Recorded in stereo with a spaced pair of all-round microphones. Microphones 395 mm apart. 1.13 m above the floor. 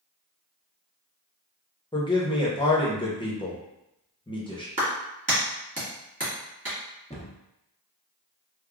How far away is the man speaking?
About 0.8 m.